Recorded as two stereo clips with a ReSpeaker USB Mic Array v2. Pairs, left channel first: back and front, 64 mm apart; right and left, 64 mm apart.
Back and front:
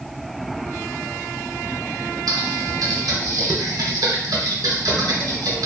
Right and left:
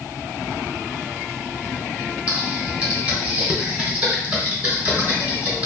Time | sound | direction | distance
2.3 | typing on a keyboard | 20° left | 0.7 m